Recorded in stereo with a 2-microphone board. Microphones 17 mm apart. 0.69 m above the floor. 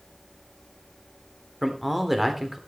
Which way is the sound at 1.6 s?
10° right (ahead or behind).